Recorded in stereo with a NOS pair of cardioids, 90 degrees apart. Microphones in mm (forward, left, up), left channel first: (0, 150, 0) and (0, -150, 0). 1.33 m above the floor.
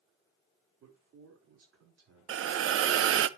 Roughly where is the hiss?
Ahead right.